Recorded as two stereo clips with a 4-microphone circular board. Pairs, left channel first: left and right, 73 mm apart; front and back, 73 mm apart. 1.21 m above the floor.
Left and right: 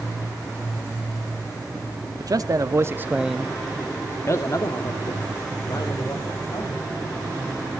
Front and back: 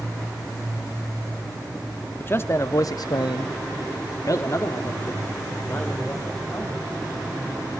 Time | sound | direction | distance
2.2 | a man speaking | 60° right | 2 m